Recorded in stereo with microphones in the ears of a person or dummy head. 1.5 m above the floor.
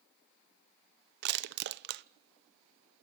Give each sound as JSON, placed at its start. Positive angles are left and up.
{"t": 1.2, "sound": "crushing", "side_deg": -65, "distance_m": 0.8}